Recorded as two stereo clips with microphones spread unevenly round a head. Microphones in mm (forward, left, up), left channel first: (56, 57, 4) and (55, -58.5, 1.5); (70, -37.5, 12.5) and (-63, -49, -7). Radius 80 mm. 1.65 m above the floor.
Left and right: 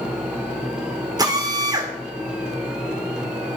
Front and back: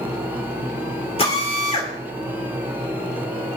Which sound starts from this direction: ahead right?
A drill, at 1.2 s.